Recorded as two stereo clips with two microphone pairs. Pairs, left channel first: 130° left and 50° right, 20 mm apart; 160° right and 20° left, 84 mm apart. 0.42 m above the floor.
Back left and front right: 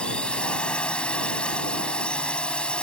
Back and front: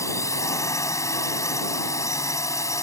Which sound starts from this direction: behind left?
A drone, at 0.0 s.